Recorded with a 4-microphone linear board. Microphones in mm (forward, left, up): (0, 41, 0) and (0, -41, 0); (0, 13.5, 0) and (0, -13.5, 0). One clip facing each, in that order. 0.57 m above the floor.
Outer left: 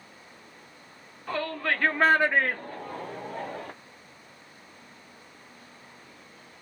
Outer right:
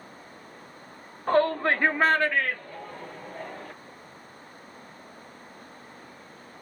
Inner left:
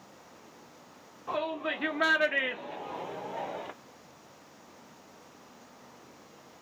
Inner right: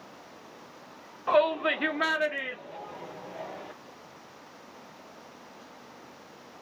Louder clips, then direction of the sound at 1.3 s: Outer right 7 dB, inner right 9 dB; 45° right (ahead or behind).